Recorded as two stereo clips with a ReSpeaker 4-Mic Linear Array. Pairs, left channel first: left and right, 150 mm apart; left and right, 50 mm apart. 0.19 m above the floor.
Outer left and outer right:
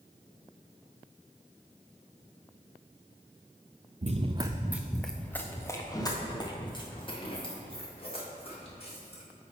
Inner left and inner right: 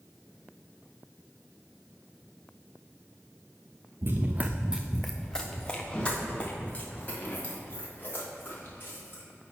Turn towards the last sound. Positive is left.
turn(degrees=40)  # may be behind; listen again after turning